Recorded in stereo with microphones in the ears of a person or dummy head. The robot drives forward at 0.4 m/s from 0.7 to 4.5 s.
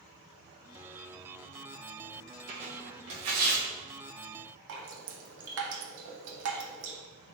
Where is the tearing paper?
50° right (ahead or behind), 1.0 m; by 3.6 s 60° right (ahead or behind), 0.8 m.